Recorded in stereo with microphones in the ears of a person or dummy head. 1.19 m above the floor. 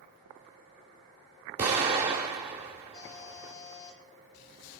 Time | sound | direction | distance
1.6 | an explosion | 30° right (ahead or behind) | 1.2 m
2.9 | a buzzer | 25° left (ahead or behind) | 5 m